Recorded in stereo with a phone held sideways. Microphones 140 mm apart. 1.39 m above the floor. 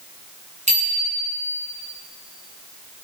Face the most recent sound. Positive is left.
turn(degrees=-60)  # may be behind; listen again after turning